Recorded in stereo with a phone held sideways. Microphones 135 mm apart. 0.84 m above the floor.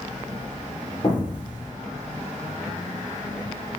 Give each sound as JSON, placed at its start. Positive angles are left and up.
{"t": 1.0, "sound": "an explosion", "side_deg": 30, "distance_m": 3.5}